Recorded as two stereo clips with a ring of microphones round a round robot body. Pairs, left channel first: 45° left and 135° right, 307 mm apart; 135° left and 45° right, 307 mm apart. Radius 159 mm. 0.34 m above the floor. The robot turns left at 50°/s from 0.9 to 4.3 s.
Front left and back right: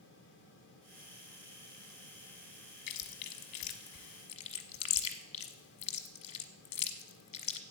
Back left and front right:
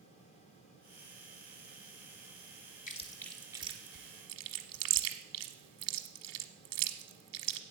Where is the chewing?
70° left, 1.1 m; by 7.6 s straight ahead, 1.1 m.